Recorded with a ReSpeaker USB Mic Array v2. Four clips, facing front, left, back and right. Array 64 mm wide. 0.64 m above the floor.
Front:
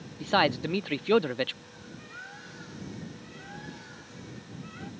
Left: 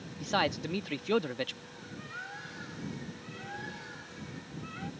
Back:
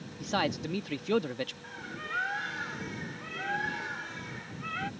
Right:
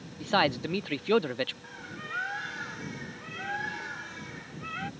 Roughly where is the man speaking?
Ahead right.